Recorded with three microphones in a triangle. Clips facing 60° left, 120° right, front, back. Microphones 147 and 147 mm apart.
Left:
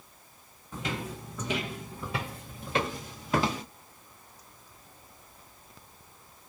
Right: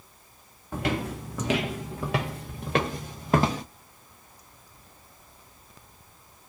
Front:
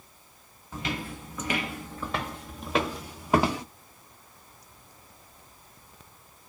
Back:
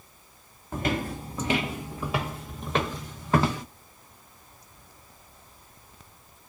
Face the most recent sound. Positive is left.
turn(degrees=-75)